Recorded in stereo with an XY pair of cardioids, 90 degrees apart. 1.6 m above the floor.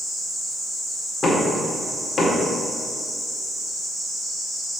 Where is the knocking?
55° left, 2 m.